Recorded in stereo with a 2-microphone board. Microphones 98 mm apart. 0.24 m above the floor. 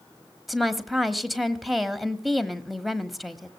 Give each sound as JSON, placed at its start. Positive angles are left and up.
{"t": 0.5, "sound": "a woman speaking", "side_deg": 0, "distance_m": 1.3}